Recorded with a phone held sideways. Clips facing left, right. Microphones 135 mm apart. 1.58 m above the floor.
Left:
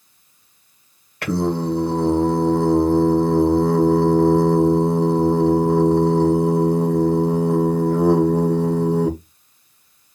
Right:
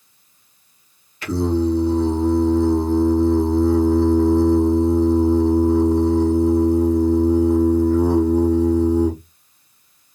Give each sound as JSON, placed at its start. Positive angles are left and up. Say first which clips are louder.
{"t": 1.2, "sound": "singing", "louder": "right 2 dB", "side_deg": 60, "distance_m": 0.9}